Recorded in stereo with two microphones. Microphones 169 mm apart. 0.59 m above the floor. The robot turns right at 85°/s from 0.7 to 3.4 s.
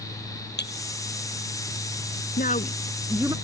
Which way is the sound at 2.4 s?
120° left.